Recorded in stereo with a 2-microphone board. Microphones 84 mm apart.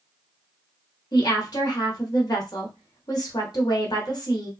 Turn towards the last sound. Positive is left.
turn(degrees=55)  # may be behind; listen again after turning